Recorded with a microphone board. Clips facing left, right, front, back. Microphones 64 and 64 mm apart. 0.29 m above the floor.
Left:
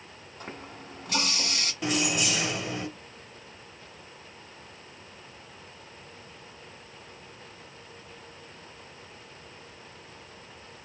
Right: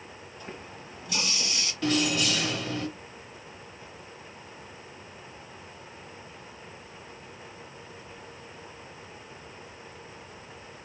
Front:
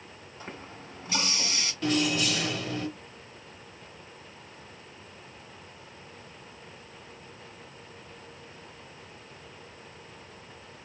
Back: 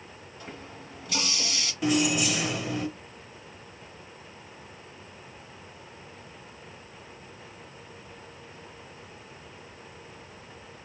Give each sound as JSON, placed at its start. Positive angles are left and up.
{"t": 0.4, "sound": "a running tap", "azimuth_deg": 60, "distance_m": 1.7}
{"t": 1.8, "sound": "keys jangling", "azimuth_deg": 130, "distance_m": 1.0}